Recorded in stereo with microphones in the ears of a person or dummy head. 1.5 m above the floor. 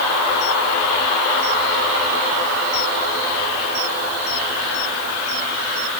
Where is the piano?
I don't hear a piano.